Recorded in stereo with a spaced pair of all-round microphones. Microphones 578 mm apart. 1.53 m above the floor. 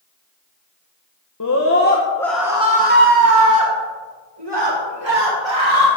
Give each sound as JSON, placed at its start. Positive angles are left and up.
{"t": 1.4, "sound": "a scream", "side_deg": 35, "distance_m": 0.9}